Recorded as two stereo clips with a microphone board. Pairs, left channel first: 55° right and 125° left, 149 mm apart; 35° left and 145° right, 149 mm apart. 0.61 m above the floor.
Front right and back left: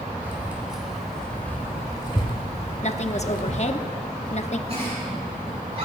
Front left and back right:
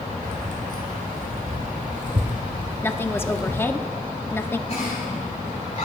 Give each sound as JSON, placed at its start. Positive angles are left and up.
{"t": 0.2, "sound": "keys jangling", "azimuth_deg": -160, "distance_m": 2.5}
{"t": 2.8, "sound": "a woman speaking", "azimuth_deg": -35, "distance_m": 0.8}
{"t": 4.7, "sound": "a giggle", "azimuth_deg": 80, "distance_m": 7.5}